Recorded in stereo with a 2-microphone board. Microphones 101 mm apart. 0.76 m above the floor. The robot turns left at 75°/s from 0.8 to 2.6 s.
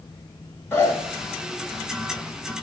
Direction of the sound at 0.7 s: 25° left (ahead or behind).